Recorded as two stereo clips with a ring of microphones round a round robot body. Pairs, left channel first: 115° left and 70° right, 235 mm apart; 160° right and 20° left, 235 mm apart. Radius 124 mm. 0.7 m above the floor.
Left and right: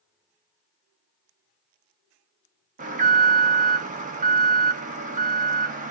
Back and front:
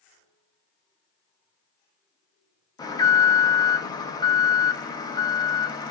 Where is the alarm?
95° right, 0.6 m.